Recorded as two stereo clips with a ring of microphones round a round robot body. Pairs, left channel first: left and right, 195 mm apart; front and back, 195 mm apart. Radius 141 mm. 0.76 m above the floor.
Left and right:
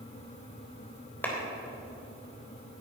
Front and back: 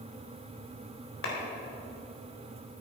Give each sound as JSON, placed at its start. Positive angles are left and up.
{"t": 1.2, "sound": "a clap", "azimuth_deg": 10, "distance_m": 3.5}